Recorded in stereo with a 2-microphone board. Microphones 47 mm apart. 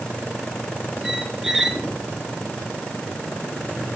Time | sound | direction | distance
1.0 | a squeak | 10° right (ahead or behind) | 1.9 m